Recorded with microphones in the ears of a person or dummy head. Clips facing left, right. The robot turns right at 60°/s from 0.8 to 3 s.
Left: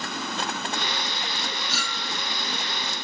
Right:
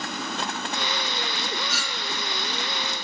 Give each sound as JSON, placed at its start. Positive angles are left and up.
{"t": 1.7, "sound": "a clink", "side_deg": -55, "distance_m": 1.5}